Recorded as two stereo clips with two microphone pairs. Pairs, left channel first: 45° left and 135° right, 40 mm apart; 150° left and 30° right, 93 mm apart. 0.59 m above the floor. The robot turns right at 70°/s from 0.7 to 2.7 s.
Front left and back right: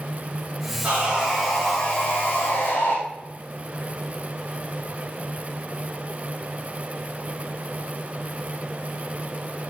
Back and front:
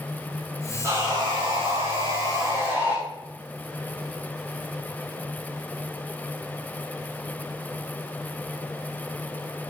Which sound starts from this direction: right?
Sawing, at 0.8 s.